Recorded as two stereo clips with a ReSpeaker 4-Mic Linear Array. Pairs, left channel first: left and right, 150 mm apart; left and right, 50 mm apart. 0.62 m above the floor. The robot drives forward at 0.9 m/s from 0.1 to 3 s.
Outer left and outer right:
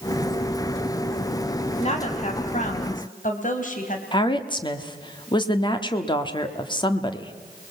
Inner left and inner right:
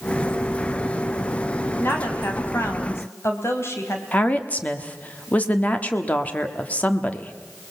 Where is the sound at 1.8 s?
45° left (ahead or behind), 4 m; by 4.0 s 60° left (ahead or behind), 3.5 m.